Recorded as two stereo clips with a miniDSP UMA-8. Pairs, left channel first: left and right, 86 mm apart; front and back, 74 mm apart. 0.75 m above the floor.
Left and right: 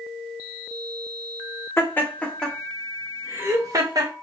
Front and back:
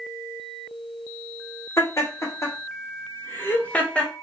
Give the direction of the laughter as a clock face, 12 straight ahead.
11 o'clock.